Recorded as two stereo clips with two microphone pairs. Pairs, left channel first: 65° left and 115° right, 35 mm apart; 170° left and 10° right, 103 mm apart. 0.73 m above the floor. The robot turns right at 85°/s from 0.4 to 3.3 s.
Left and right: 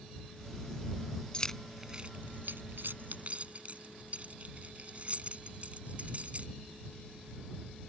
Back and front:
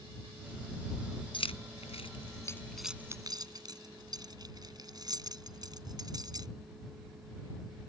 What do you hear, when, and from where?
1.3 s keys jangling: 135° left; by 6.5 s 60° right